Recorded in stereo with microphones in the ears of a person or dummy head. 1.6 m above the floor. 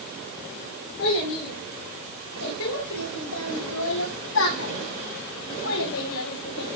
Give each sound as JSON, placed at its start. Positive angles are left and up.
{"t": 1.0, "sound": "a child speaking", "side_deg": 75, "distance_m": 9.0}